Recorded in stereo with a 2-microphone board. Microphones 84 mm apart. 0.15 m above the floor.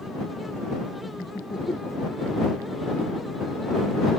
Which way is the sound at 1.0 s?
55° left (ahead or behind).